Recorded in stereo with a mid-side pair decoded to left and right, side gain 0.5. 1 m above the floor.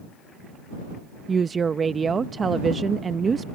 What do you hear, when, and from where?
1.3 s a woman speaking: 35° right